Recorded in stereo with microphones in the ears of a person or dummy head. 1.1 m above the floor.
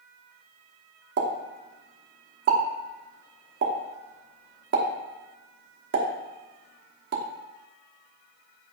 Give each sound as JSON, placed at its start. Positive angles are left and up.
{"t": 1.2, "sound": "a pop", "side_deg": -65, "distance_m": 1.0}